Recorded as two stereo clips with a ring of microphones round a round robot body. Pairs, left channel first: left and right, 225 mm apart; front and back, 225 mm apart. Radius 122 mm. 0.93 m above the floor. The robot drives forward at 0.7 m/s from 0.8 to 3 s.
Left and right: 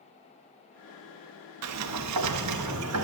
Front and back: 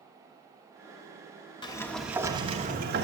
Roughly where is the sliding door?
Right.